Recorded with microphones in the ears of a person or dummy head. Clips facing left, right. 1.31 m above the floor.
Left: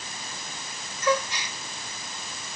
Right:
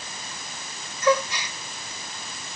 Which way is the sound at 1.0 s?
65° right (ahead or behind).